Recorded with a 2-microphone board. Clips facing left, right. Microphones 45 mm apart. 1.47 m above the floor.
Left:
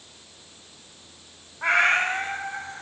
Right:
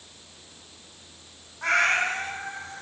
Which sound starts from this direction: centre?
A cat meowing, at 1.6 s.